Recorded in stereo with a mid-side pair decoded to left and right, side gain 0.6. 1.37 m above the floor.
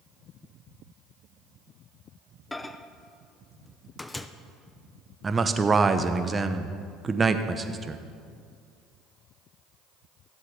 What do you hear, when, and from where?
2.5 s a microwave: 15° left, 0.6 m
5.2 s a man speaking: 25° right, 0.9 m